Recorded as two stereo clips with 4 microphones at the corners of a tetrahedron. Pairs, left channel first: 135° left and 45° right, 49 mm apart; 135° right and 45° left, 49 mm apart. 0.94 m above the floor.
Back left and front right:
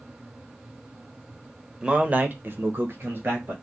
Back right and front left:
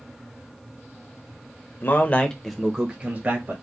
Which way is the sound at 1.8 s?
110° right.